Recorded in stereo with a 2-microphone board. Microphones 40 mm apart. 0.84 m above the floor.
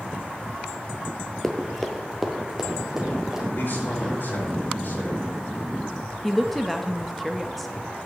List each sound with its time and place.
1.4 s running footsteps: 5° left (ahead or behind), 0.9 m; by 3.5 s 15° right (ahead or behind), 3 m
3.5 s a man speaking: 55° left (ahead or behind), 4.5 m
6.2 s a woman speaking: centre (ahead or behind), 0.6 m